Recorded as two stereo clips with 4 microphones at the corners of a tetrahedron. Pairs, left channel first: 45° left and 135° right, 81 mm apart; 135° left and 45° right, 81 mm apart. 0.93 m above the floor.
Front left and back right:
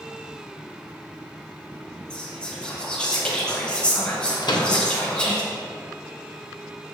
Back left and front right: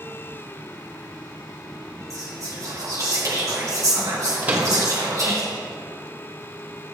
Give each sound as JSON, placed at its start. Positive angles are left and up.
{"t": 2.1, "sound": "whispering", "azimuth_deg": -30, "distance_m": 1.2}
{"t": 4.4, "sound": "a microwave", "azimuth_deg": 20, "distance_m": 0.8}